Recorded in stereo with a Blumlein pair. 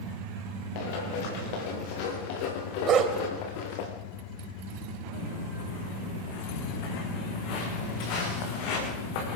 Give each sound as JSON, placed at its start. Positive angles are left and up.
{"t": 0.8, "sound": "running footsteps", "azimuth_deg": 50, "distance_m": 7.0}
{"t": 2.9, "sound": "a dog barking", "azimuth_deg": -25, "distance_m": 2.5}
{"t": 5.1, "sound": "footsteps", "azimuth_deg": 45, "distance_m": 7.0}